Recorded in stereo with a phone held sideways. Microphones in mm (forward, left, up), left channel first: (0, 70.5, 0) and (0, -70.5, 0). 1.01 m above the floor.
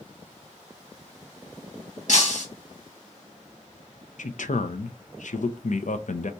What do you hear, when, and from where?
2.1 s breaking glass: 65° left (ahead or behind), 2 m
4.2 s a man speaking: 70° left (ahead or behind), 0.5 m